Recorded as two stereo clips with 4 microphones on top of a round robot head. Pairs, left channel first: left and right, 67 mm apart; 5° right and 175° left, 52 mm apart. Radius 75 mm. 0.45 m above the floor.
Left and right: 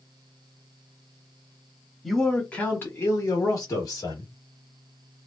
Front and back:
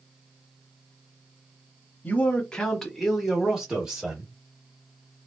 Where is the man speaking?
5° left, 0.9 m; by 4.3 s 105° left, 1.6 m.